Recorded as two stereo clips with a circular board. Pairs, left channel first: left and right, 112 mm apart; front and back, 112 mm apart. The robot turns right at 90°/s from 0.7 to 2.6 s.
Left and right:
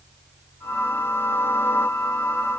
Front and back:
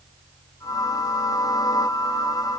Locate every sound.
Only background noise.